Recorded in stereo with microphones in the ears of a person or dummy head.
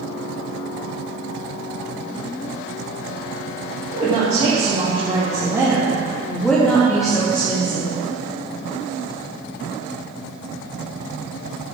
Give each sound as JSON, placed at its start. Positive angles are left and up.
{"t": 3.9, "sound": "a woman speaking", "side_deg": -45, "distance_m": 2.5}